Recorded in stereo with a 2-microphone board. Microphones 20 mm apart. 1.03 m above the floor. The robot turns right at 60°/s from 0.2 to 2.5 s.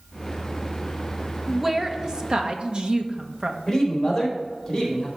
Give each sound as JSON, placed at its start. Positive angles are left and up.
{"t": 1.5, "sound": "a woman speaking", "azimuth_deg": 180, "distance_m": 1.0}
{"t": 3.7, "sound": "a man speaking", "side_deg": 25, "distance_m": 4.0}